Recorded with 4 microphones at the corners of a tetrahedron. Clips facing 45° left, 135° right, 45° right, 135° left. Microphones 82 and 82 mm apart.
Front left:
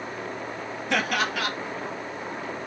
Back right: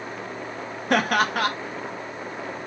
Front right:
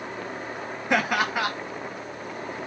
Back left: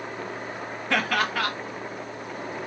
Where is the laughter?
110° right, 1.4 m.